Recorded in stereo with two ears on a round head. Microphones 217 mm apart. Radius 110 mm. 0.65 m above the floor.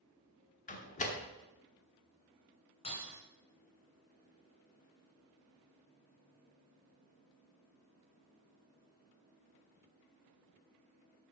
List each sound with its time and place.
0.7 s a door slam: 30° left (ahead or behind), 1.1 m
2.8 s breaking glass: 25° left (ahead or behind), 3 m